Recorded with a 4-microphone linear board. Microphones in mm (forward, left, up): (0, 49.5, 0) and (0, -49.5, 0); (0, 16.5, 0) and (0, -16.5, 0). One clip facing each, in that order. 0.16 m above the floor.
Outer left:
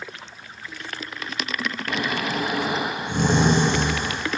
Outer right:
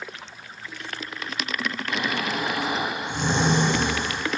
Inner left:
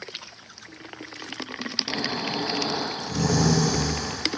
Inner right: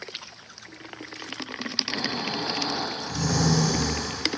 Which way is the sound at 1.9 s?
55° left (ahead or behind).